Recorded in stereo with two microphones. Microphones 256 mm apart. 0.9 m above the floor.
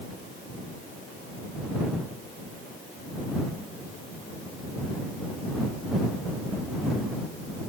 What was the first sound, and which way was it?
Only background noise.